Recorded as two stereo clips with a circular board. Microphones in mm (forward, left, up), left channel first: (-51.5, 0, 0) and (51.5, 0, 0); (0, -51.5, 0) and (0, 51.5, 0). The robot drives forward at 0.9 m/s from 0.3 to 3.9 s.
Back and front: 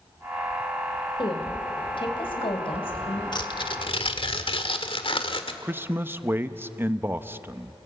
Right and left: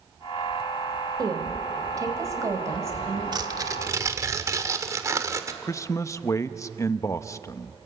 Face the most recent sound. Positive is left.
turn(degrees=-55)